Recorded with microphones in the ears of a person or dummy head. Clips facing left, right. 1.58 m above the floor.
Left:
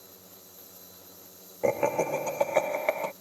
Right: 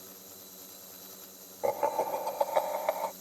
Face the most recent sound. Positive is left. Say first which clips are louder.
# left 4 dB
turn(degrees=35)  # may be behind; listen again after turning